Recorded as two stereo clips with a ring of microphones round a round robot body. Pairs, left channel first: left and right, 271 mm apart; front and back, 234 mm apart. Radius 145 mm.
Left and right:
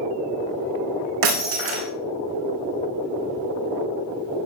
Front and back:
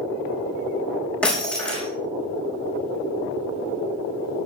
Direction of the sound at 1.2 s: 85° right.